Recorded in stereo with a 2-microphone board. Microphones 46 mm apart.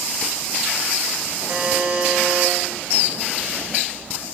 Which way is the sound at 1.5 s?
40° right (ahead or behind).